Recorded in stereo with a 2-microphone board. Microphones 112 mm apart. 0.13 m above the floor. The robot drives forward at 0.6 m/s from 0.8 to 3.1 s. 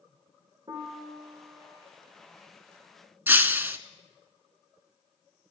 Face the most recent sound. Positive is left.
turn(degrees=-15)  # may be behind; listen again after turning